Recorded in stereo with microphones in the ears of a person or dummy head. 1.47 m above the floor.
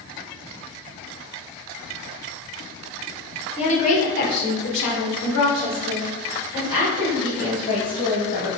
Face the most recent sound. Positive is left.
turn(degrees=50)  # may be behind; listen again after turning